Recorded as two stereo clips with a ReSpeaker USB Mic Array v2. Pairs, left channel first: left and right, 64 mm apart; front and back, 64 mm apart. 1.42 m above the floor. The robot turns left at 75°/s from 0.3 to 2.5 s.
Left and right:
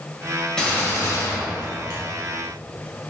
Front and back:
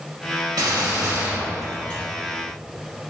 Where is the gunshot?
170° left, 1.8 m; by 2.0 s 60° left, 1.8 m.